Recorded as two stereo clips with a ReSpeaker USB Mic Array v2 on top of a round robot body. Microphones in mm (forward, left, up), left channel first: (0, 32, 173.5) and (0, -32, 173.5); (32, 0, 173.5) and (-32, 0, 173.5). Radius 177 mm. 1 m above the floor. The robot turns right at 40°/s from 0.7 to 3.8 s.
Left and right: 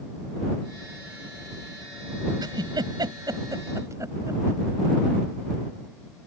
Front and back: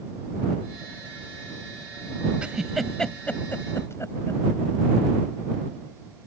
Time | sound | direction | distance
2.4 | a giggle | 105° right | ?